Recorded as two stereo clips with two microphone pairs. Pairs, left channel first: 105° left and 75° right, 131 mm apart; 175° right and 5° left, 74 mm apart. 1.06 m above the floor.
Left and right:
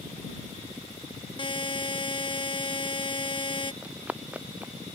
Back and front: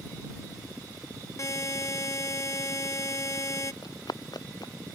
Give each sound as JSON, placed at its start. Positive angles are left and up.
{"t": 1.4, "sound": "a buzzer", "azimuth_deg": 150}
{"t": 3.8, "sound": "running footsteps", "azimuth_deg": -155}